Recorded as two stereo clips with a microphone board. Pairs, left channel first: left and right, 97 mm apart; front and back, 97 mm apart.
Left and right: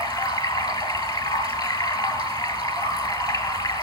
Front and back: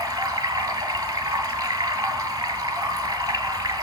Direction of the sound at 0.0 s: 130° left.